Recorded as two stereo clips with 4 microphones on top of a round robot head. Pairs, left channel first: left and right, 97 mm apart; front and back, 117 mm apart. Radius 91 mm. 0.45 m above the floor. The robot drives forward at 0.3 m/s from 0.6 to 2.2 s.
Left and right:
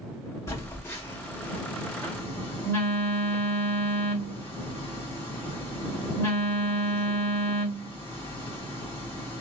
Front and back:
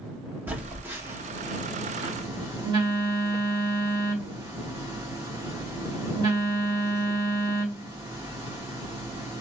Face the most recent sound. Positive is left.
turn(degrees=145)